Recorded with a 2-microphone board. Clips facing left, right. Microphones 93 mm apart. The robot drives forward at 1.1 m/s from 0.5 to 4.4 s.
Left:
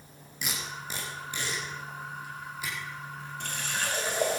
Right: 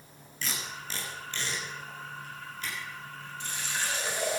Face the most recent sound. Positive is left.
turn(degrees=45)  # may be behind; listen again after turning